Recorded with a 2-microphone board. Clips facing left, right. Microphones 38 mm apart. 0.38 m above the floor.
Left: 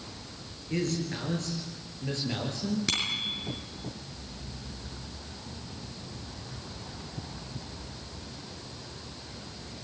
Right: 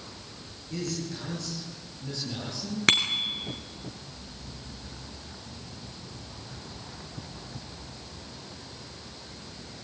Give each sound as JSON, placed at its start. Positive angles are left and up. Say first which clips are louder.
{"t": 0.7, "sound": "a man speaking", "louder": "left 3 dB", "side_deg": 40, "distance_m": 8.5}
{"t": 2.9, "sound": "a bicycle bell", "louder": "right 12 dB", "side_deg": -55, "distance_m": 4.5}